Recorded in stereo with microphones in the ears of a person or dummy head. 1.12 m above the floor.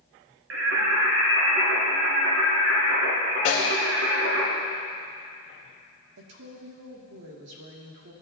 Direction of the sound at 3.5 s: 40° left (ahead or behind).